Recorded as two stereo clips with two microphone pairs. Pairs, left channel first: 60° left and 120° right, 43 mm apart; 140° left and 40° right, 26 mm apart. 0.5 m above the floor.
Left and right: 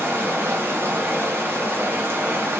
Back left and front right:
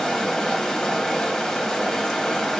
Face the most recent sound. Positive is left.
turn(degrees=-145)